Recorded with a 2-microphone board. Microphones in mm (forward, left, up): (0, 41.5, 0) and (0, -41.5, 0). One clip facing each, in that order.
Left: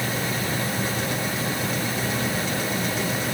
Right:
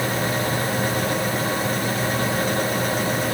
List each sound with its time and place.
Only background noise.